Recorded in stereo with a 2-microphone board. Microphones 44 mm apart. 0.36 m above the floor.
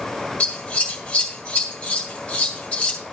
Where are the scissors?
25° left (ahead or behind), 2 m.